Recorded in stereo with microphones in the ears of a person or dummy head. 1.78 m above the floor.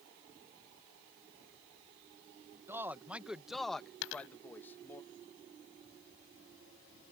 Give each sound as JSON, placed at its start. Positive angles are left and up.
{"t": 2.7, "sound": "a man speaking", "side_deg": -15}
{"t": 4.0, "sound": "a dropped coin", "side_deg": 70}